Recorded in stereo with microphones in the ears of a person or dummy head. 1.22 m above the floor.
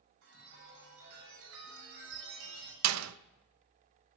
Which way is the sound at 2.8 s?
80° right.